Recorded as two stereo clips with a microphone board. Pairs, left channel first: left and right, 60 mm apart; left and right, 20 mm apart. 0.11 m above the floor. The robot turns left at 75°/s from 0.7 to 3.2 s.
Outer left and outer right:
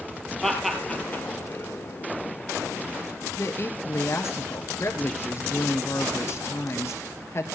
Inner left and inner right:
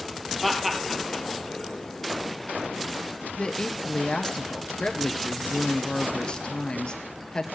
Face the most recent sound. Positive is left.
turn(degrees=45)  # may be behind; listen again after turning